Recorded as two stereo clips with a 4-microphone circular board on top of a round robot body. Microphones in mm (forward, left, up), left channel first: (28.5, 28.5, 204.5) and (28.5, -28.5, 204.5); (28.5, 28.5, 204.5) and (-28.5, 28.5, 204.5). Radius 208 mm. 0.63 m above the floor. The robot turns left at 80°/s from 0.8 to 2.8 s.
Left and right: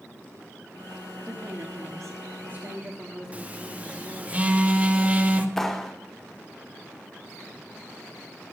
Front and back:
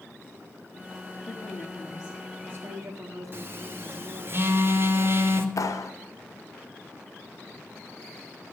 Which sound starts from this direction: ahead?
A clap, at 5.6 s.